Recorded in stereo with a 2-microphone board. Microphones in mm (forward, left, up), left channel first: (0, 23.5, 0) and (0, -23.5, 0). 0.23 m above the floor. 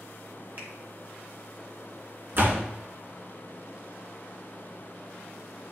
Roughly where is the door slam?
Right.